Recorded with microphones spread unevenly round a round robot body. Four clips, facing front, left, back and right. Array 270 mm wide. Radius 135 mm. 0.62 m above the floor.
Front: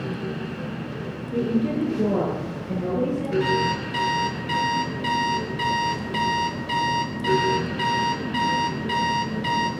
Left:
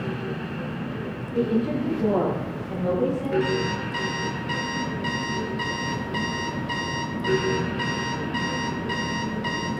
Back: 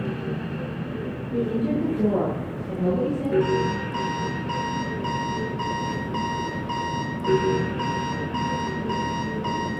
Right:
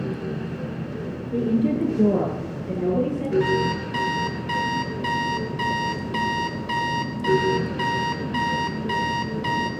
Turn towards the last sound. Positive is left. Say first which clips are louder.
# right 3 dB, even
turn(degrees=-75)